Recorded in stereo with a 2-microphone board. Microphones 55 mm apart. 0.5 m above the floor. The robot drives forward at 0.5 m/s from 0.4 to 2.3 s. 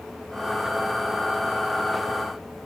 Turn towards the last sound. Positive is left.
No sound to turn to.